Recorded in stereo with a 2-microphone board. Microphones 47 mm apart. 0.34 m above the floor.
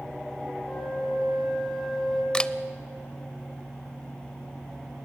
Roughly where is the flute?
Centre.